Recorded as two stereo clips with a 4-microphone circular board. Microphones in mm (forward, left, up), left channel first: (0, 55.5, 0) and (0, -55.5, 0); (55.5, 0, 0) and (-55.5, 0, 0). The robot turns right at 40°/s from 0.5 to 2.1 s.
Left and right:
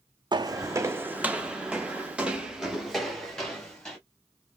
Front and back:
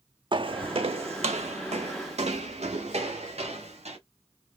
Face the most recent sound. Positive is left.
turn(degrees=175)